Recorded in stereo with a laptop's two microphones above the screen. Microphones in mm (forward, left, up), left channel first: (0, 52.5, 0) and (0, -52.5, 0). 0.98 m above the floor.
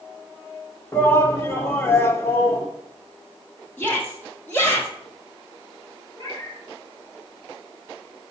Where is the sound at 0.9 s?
25° left (ahead or behind), 1.3 m.